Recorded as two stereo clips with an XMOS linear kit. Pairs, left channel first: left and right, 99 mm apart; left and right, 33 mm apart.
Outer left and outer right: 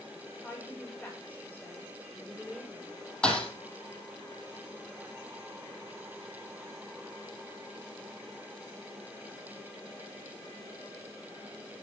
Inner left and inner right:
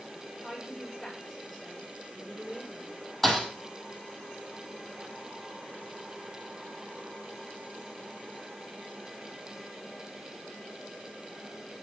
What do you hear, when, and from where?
0.3 s a woman speaking: 20° left (ahead or behind), 5.5 m; by 3.0 s 10° left (ahead or behind), 7 m
3.2 s a thud: 10° left (ahead or behind), 2.5 m